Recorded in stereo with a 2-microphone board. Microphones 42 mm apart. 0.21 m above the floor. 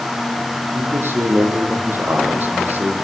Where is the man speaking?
60° right (ahead or behind), 9.5 m; by 3.0 s 40° right (ahead or behind), 9.5 m.